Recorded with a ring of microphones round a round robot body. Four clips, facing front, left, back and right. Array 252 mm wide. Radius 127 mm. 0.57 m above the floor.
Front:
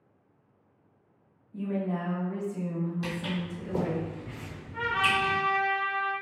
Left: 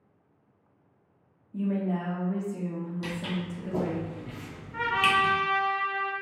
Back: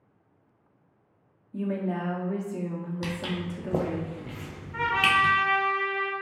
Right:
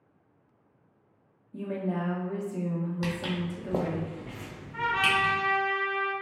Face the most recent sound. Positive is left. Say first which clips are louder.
# left 2 dB, back 3 dB
turn(degrees=150)